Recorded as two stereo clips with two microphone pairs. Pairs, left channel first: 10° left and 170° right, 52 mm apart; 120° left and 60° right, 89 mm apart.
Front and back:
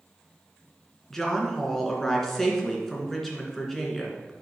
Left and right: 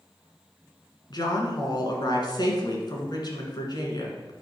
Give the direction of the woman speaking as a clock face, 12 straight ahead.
9 o'clock.